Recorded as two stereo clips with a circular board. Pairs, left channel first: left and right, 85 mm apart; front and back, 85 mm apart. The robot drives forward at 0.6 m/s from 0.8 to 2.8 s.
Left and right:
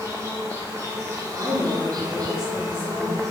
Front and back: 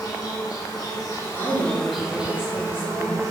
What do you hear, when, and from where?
0.0 s an insect: 35° right, 1.0 m; by 3.3 s 135° right, 0.9 m
1.3 s a woman speaking: 105° right, 1.9 m; by 3.2 s 125° right, 2.5 m